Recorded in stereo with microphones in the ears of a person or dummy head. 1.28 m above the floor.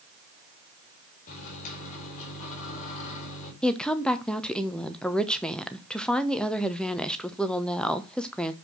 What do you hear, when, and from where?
1.3 s a microwave: 40° left (ahead or behind), 3.5 m
3.6 s a woman speaking: 5° left (ahead or behind), 1.0 m